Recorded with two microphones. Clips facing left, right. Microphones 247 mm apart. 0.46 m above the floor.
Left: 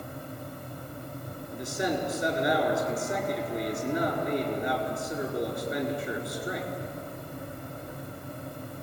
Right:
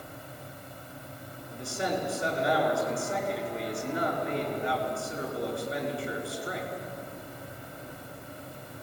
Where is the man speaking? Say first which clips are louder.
Left 2 dB; 20° left (ahead or behind), 6 m.